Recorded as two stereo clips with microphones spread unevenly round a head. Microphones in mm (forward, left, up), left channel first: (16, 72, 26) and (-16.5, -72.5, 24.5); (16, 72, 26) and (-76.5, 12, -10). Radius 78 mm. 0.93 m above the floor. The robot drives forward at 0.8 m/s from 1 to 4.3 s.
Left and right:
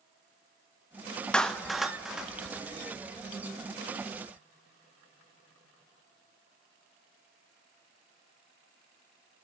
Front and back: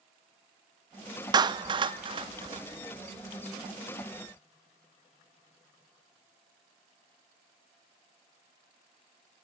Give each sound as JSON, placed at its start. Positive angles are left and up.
{"t": 1.3, "sound": "a clap", "azimuth_deg": 160, "distance_m": 0.6}